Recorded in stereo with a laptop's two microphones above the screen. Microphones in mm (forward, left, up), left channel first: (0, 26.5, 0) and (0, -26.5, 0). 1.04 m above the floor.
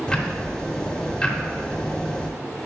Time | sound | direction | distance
0.1 | ticking | 15° left (ahead or behind) | 0.7 m